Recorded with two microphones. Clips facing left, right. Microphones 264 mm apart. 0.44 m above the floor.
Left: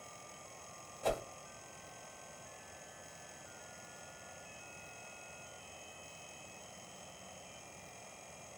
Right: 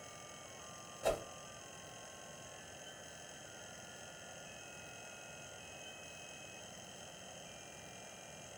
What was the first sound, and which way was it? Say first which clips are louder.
A whoosh: even; 10° right (ahead or behind).